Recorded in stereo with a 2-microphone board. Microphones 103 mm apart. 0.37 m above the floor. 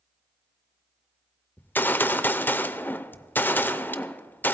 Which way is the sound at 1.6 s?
20° left (ahead or behind).